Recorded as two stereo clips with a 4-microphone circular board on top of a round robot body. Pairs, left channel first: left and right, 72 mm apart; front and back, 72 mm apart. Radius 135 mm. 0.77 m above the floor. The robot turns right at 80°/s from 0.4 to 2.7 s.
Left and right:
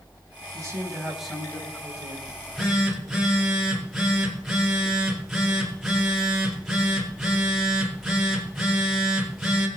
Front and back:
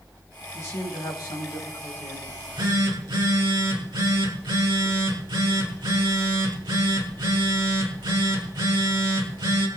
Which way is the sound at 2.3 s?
150° left.